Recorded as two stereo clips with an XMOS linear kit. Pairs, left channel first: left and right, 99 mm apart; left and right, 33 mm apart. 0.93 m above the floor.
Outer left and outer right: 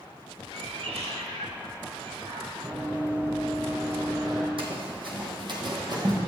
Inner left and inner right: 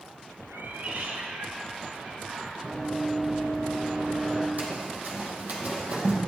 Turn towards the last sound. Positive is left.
turn(degrees=-40)  # may be behind; listen again after turning